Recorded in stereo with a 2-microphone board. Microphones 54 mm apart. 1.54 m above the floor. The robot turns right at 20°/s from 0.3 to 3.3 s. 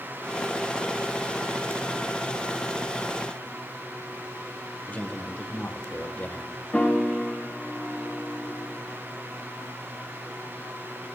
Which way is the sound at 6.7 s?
25° left (ahead or behind).